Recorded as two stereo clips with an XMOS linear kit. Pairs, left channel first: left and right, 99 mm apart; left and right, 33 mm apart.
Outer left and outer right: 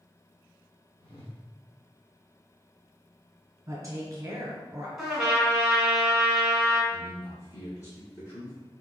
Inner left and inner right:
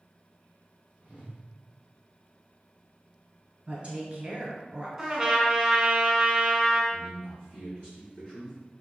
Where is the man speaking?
35° left (ahead or behind), 1.7 m.